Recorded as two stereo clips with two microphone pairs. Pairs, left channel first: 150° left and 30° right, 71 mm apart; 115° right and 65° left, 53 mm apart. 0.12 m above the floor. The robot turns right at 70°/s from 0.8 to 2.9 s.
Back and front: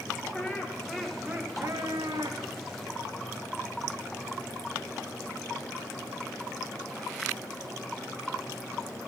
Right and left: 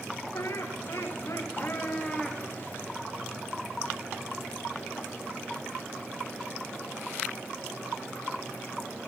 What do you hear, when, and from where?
0.3 s laughter: 125° right, 8.5 m; by 2.4 s 10° right, 8.5 m